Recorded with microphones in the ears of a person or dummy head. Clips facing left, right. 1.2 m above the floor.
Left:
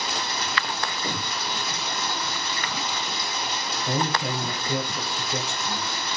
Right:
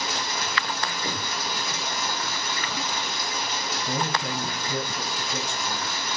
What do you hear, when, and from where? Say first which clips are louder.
0.0 s running water: even; 50° right (ahead or behind), 1.4 m
3.9 s a man speaking: left 3 dB; 30° left (ahead or behind), 1.2 m